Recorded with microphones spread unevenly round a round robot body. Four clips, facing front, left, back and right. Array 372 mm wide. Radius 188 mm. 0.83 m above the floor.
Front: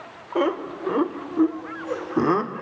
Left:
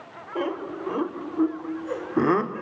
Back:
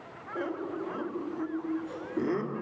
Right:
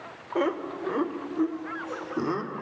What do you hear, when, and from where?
0.3 s laughter: 10° right, 3.5 m; by 2.6 s 50° left, 3 m